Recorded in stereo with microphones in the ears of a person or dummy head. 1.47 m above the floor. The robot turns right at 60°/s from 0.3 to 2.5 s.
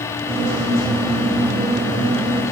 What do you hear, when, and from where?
Only background noise.